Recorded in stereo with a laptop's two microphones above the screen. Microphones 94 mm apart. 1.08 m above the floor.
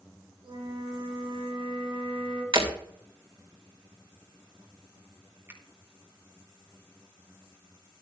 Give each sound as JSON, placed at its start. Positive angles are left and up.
{"t": 0.4, "sound": "a flute", "side_deg": -70, "distance_m": 4.5}
{"t": 2.5, "sound": "breaking glass", "side_deg": -60, "distance_m": 2.5}
{"t": 5.5, "sound": "a finger snap", "side_deg": -30, "distance_m": 1.5}